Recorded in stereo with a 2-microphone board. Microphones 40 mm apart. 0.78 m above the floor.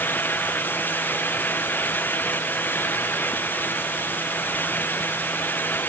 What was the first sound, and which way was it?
Only background noise.